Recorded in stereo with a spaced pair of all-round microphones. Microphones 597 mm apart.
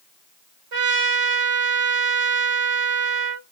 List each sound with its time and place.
0.7 s a trumpet: 60° right (ahead or behind), 0.9 m